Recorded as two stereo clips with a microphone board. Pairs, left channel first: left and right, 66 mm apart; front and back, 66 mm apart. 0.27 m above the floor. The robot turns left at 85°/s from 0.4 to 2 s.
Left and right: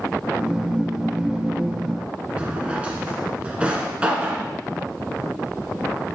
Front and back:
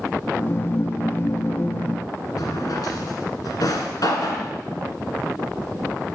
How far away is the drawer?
About 1.5 m.